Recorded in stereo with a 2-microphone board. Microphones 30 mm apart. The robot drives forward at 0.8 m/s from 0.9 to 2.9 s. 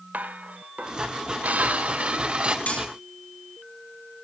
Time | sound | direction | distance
0.1 | dishes clattering | 65° right (ahead or behind) | 1.1 m
2.7 | cutlery clinking | 65° left (ahead or behind) | 5.5 m